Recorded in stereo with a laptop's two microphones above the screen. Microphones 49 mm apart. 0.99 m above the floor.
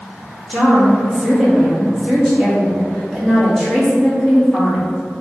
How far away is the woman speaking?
About 2.0 m.